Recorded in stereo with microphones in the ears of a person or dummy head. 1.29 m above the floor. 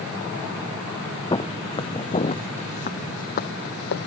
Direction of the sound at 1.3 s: 15° left (ahead or behind).